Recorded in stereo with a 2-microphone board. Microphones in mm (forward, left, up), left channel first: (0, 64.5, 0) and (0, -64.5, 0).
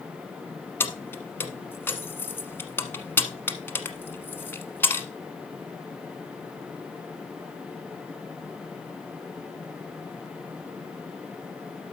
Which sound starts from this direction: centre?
Keys jangling, at 0.8 s.